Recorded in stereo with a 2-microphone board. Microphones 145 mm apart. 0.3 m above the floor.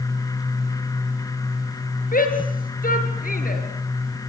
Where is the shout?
75° left (ahead or behind), 6 m.